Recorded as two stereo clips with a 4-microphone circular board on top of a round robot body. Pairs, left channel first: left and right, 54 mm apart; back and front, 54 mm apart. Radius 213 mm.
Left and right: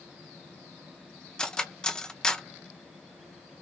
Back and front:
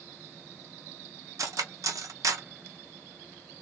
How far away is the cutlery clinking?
About 0.7 m.